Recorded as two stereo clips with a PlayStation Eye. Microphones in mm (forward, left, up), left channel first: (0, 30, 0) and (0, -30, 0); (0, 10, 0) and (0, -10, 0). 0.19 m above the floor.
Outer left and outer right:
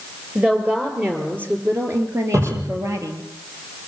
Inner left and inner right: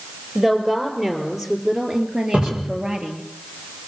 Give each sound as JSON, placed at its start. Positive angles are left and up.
{"t": 0.3, "sound": "a woman speaking", "side_deg": -25, "distance_m": 4.5}
{"t": 2.3, "sound": "a cupboard door", "side_deg": -75, "distance_m": 7.0}